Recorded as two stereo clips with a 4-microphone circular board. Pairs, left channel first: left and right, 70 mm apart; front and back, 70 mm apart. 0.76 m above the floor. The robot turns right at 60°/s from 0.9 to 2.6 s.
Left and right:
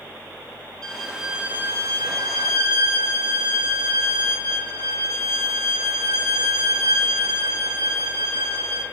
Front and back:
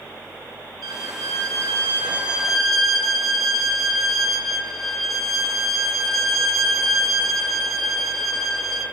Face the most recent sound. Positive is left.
turn(degrees=-85)